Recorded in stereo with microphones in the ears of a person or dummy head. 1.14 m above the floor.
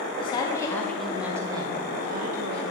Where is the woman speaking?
30° left (ahead or behind), 1.2 m; by 2.6 s 50° right (ahead or behind), 1.2 m.